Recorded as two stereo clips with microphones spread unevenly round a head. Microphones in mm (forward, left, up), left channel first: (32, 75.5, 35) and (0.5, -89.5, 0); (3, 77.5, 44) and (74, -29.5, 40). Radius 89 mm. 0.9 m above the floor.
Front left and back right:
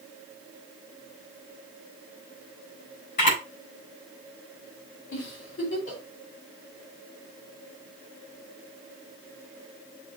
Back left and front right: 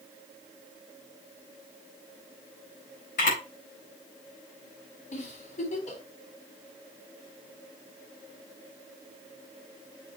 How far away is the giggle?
About 3.5 m.